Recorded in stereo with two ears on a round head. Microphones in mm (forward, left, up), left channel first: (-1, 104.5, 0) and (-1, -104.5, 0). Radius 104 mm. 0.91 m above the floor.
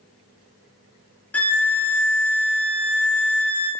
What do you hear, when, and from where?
1.3 s a violin: 5° left (ahead or behind), 0.9 m